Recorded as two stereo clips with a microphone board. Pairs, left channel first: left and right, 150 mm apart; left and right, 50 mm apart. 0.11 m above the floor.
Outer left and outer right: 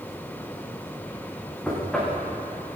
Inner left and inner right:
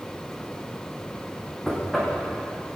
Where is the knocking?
5° left (ahead or behind), 6.5 m.